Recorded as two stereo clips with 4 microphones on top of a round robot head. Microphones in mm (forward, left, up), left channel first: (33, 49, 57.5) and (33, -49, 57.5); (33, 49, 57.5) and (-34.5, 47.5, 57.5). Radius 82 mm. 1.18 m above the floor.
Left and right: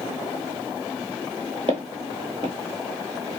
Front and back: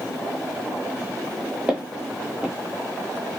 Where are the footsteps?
105° right, 1.3 m.